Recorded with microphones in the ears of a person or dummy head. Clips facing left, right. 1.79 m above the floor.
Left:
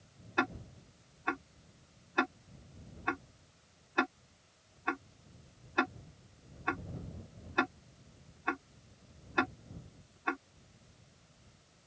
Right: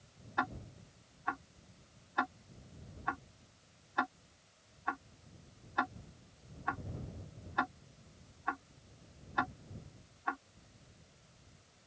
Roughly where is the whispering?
No whispering in this recording.